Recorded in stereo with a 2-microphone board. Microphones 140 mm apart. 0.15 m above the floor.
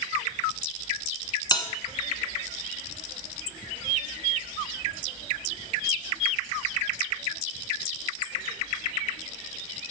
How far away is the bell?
About 1.5 m.